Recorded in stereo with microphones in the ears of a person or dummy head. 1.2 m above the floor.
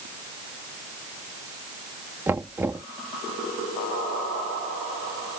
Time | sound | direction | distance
2.3 | knocking | 10° right (ahead or behind) | ?